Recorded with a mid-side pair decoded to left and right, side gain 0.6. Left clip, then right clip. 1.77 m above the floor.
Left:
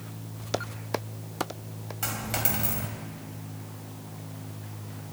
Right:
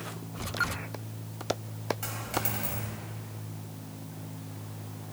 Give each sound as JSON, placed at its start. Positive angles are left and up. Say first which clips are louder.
{"t": 2.0, "sound": "a dropped coin", "louder": "left 2 dB", "azimuth_deg": 30, "distance_m": 4.0}